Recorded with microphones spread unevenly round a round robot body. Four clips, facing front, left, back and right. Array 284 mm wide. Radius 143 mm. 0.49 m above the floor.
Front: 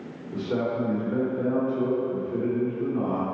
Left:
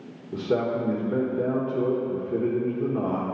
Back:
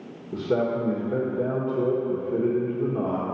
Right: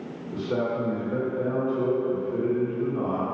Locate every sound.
0.3 s a man speaking: 140° left, 1.4 m